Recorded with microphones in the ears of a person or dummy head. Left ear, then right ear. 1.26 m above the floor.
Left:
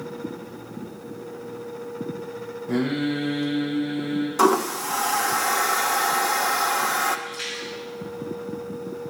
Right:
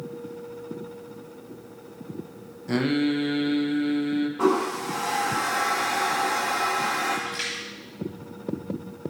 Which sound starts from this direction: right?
Singing, at 2.7 s.